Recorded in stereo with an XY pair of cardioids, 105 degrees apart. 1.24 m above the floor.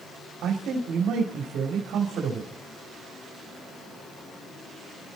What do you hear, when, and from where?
0.4 s a man speaking: 70° right, 2.5 m